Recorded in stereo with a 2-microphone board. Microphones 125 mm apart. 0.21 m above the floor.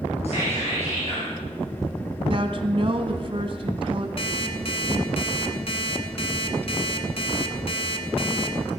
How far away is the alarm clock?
About 1.4 m.